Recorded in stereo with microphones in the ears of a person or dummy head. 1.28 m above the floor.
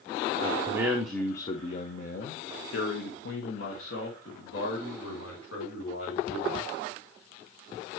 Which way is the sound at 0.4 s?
35° right (ahead or behind).